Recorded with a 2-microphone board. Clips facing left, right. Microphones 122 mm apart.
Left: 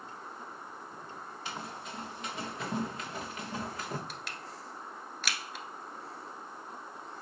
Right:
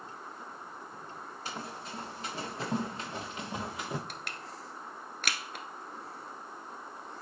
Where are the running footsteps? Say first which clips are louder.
Right 1 dB; 35° right (ahead or behind), 4.5 m; by 4.0 s 10° right (ahead or behind), 1.3 m.